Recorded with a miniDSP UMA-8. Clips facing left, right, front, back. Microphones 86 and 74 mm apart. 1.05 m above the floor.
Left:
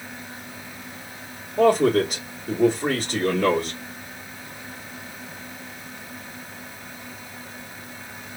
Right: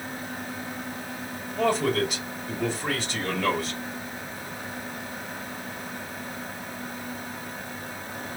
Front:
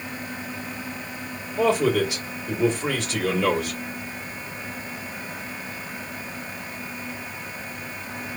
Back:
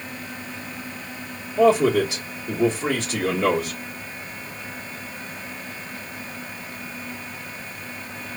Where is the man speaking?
130° left, 1.2 m.